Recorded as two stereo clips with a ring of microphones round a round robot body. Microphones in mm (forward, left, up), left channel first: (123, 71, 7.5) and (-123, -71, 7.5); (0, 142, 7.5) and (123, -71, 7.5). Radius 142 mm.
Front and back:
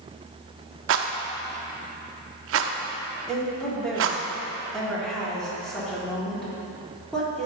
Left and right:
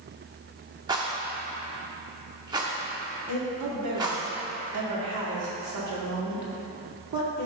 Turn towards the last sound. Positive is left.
turn(degrees=-60)